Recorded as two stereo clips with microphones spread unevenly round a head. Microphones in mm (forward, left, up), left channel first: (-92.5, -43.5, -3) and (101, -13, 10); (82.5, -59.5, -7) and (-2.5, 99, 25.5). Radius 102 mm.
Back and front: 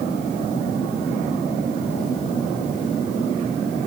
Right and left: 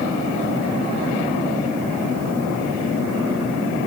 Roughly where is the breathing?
No breathing in this recording.